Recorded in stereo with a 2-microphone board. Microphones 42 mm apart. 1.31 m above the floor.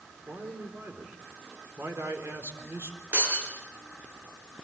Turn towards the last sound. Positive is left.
turn(degrees=-50)  # may be behind; listen again after turning